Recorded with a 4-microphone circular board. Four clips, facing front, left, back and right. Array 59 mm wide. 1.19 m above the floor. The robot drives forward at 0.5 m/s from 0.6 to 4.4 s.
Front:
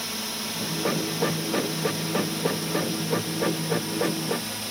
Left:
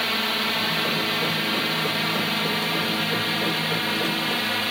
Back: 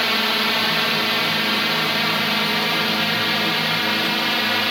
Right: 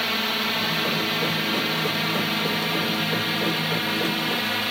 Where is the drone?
Straight behind.